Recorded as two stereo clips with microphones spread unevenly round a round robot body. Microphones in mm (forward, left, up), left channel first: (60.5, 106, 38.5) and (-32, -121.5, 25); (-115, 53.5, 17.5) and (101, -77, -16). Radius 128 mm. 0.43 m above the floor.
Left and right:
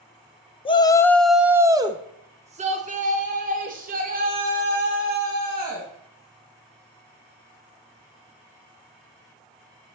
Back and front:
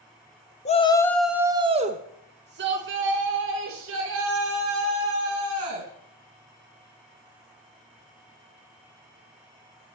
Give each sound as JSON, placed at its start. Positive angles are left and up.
{"t": 0.7, "sound": "a shout", "azimuth_deg": 110, "distance_m": 0.8}